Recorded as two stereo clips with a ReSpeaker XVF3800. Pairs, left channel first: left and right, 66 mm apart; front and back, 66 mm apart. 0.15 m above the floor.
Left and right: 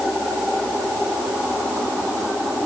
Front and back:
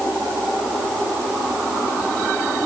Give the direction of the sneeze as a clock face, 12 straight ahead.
No sneeze in this recording.